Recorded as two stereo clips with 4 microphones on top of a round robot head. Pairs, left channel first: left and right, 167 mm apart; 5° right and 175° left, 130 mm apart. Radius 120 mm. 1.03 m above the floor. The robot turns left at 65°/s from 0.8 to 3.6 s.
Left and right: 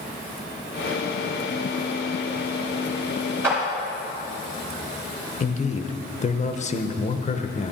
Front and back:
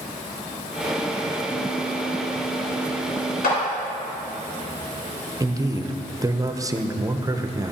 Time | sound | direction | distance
3.4 | a clap | 10° right | 3.5 m
5.4 | a man speaking | 120° left | 0.9 m